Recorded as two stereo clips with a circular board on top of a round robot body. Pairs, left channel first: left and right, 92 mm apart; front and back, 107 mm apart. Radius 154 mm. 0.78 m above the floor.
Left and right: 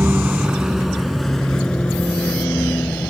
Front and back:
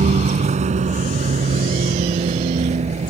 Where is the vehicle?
165° right; by 3.1 s 165° left.